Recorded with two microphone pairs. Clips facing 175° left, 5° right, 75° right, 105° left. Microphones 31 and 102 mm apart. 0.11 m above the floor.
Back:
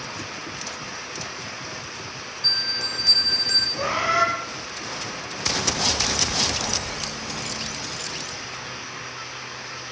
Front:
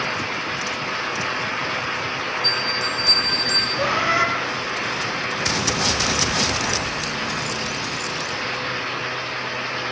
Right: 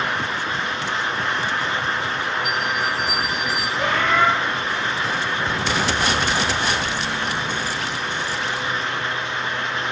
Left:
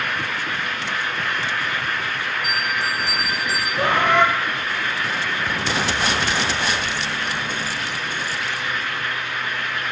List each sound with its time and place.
2.4 s a bell: 90° left, 2 m
3.8 s a bird: 90° left, 3.5 m